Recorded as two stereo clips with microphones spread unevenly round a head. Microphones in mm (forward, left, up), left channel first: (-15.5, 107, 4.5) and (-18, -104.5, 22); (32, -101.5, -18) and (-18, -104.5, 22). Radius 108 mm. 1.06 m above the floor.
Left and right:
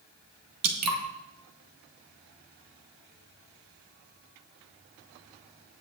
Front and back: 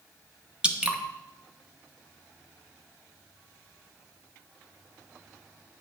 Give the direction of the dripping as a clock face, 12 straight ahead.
3 o'clock.